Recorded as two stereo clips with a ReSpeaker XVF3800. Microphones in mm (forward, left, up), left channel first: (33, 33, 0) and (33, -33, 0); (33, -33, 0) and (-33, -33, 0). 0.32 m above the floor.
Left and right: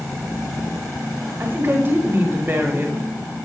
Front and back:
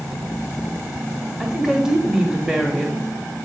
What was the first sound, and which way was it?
A woman speaking, 105° right.